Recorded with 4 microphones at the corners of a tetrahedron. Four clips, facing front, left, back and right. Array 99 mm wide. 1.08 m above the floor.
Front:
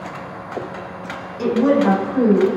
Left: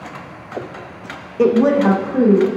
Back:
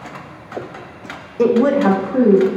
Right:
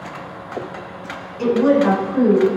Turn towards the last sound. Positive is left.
turn(degrees=155)